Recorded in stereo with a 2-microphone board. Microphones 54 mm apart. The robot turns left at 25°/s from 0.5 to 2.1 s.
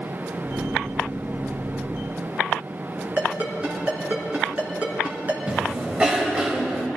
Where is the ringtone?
30° right (ahead or behind), 3 m.